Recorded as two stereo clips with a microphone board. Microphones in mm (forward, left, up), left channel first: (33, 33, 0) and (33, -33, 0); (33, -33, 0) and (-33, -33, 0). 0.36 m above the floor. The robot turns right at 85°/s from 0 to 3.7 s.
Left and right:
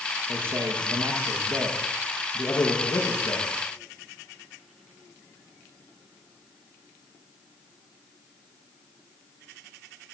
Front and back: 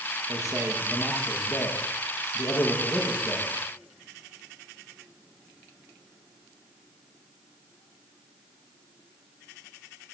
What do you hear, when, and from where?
0.3 s a man speaking: 160° right, 7 m; by 3.5 s 115° left, 7 m